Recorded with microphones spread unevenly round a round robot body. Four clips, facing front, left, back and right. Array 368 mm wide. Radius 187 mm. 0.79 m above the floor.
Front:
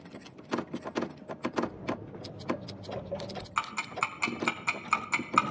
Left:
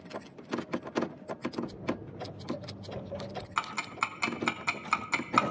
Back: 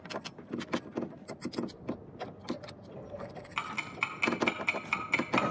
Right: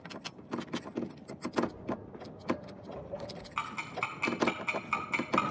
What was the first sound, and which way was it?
Footsteps, 65° left.